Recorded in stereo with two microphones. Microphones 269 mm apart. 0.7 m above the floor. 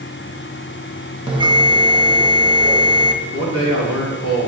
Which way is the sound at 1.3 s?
15° right (ahead or behind).